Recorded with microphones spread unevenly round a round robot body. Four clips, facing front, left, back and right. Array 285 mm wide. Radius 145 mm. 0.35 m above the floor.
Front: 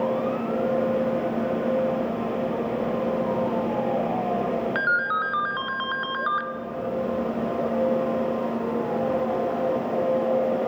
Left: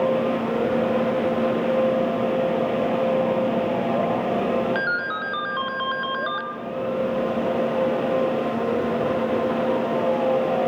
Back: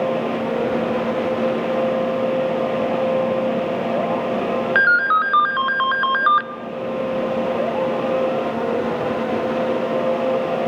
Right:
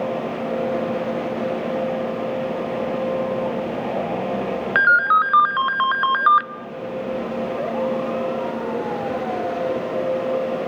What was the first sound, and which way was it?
A ringtone, 125° right.